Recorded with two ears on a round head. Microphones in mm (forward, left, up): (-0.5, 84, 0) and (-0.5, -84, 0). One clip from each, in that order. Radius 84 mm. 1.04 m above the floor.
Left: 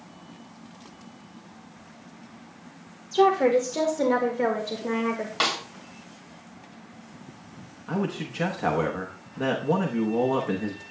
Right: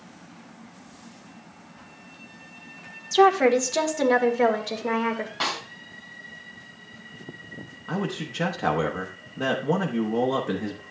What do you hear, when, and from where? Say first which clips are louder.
3.1 s a woman speaking: right 2 dB; 60° right (ahead or behind), 1.5 m; by 5.3 s 20° right (ahead or behind), 2.0 m
5.4 s a snare drum: left 3 dB; 70° left (ahead or behind), 2.5 m
7.9 s a man speaking: even; 10° right (ahead or behind), 0.9 m